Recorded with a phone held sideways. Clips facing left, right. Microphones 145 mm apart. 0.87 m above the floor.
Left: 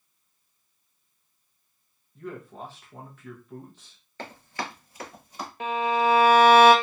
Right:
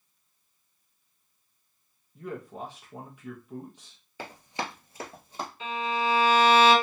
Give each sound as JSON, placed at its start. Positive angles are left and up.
{"t": 2.1, "sound": "a man speaking", "side_deg": -10, "distance_m": 0.6}
{"t": 4.2, "sound": "running footsteps", "side_deg": -10, "distance_m": 0.9}
{"t": 5.6, "sound": "a violin", "side_deg": 60, "distance_m": 0.6}